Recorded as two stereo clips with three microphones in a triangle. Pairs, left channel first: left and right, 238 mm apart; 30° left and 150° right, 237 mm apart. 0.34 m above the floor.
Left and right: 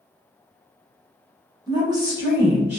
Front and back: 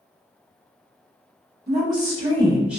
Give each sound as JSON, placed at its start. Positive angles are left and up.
{"t": 1.7, "sound": "a woman speaking", "azimuth_deg": -155, "distance_m": 1.2}